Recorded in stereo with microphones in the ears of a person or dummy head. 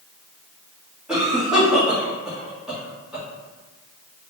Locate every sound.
1.1 s a cough: 5° right (ahead or behind), 1.4 m